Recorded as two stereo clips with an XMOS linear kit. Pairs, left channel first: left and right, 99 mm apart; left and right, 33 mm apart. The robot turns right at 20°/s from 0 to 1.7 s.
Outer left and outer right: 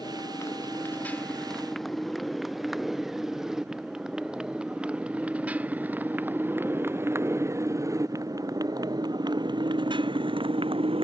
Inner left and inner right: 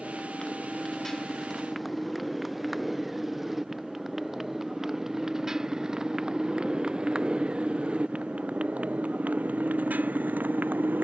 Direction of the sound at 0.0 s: 40° left (ahead or behind).